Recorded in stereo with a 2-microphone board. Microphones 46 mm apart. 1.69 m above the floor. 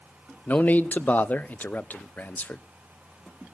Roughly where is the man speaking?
Left.